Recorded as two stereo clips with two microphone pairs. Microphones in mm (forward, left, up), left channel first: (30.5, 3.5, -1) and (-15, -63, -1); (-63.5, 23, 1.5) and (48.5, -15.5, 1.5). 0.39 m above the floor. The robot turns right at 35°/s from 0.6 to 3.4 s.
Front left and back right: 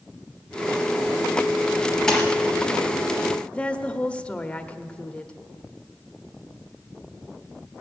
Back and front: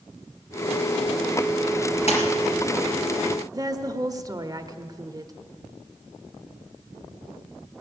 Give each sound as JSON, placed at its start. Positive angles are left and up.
{"t": 2.1, "sound": "a splash", "azimuth_deg": 135, "distance_m": 3.5}
{"t": 3.5, "sound": "a woman speaking", "azimuth_deg": -10, "distance_m": 0.8}